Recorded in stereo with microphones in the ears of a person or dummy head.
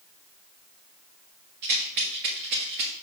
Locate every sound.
1.6 s a rattle: 35° right (ahead or behind), 0.9 m